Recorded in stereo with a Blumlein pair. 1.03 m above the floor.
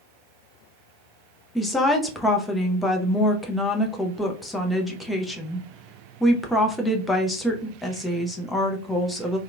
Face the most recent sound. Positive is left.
turn(degrees=10)